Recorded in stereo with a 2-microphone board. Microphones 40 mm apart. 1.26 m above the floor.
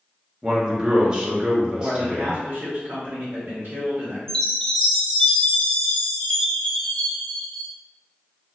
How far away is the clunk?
I don't hear a clunk.